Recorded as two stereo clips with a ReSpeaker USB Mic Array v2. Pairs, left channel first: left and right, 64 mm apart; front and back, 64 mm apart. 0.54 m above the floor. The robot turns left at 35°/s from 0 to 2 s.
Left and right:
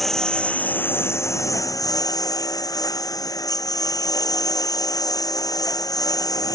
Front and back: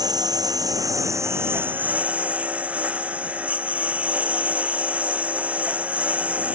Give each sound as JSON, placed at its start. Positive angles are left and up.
{"t": 0.0, "sound": "a lawn mower", "azimuth_deg": 180}